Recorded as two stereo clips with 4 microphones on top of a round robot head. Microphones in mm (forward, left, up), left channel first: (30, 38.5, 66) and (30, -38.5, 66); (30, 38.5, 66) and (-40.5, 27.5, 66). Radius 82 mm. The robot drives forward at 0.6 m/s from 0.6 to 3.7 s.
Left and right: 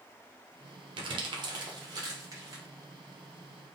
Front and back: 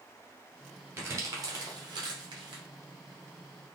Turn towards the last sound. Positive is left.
turn(degrees=-160)